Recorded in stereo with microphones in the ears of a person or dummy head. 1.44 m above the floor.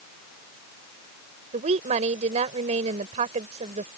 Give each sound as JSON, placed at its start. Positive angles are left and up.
{"t": 1.5, "sound": "a woman speaking", "side_deg": -35}